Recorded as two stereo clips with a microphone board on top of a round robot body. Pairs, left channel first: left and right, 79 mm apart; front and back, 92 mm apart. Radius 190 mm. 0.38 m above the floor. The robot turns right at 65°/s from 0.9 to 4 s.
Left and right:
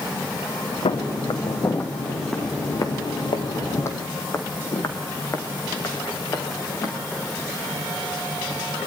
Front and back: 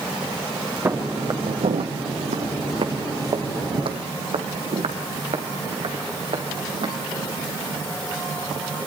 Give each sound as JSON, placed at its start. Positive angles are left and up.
{"t": 0.8, "sound": "footsteps", "azimuth_deg": 110, "distance_m": 2.5}